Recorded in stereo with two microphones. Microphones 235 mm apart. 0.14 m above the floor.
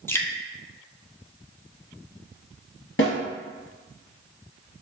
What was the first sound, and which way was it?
Dripping, 10° left (ahead or behind).